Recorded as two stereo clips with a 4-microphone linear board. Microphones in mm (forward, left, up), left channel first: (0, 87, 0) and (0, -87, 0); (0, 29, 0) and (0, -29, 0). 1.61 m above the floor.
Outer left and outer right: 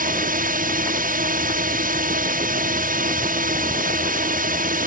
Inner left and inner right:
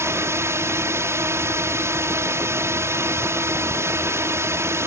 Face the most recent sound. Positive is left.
turn(degrees=-50)  # may be behind; listen again after turning